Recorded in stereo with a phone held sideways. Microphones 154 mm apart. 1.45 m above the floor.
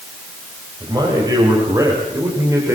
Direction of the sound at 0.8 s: 25° right (ahead or behind).